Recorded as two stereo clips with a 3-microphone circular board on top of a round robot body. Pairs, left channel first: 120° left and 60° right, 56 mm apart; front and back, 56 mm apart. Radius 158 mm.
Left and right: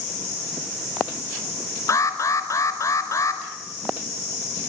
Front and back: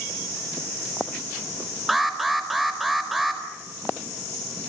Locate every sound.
1.9 s an alarm: 90° left, 4.5 m